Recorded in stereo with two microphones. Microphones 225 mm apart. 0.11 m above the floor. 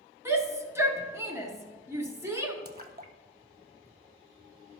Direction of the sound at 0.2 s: 10° right (ahead or behind).